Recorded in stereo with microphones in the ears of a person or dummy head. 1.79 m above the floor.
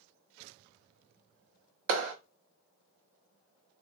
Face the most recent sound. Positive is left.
turn(degrees=-65)  # may be behind; listen again after turning